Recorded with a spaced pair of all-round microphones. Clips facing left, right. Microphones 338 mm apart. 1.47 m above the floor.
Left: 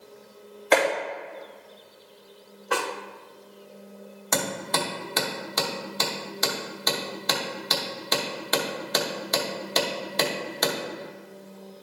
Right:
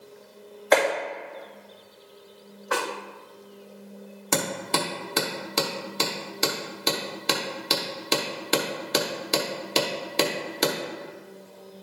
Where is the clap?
40° left (ahead or behind), 2 m.